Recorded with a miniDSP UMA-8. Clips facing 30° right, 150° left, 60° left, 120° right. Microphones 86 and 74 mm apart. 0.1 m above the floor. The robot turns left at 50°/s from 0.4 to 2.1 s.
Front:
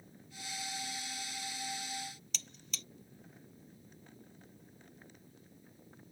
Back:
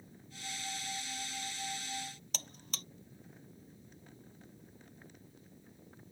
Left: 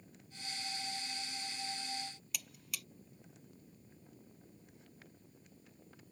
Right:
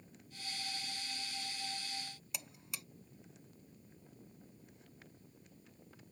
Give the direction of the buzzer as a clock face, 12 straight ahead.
6 o'clock.